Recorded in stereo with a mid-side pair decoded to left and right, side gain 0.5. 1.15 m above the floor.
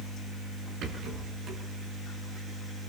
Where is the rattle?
65° right, 9.5 m.